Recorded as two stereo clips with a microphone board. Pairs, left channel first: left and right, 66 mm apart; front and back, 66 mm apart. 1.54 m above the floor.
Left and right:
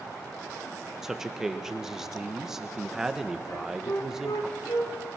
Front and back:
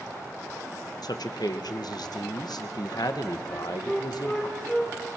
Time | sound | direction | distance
1.0 | a man speaking | 5° right | 1.4 m
3.5 | a flute | 70° left | 4 m